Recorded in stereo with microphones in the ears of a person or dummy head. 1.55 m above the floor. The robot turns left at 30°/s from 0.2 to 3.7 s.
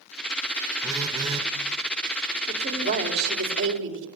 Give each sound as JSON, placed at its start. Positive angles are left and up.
{"t": 0.8, "sound": "a phone buzzing", "side_deg": -15, "distance_m": 1.5}
{"t": 2.5, "sound": "a woman speaking", "azimuth_deg": -35, "distance_m": 4.5}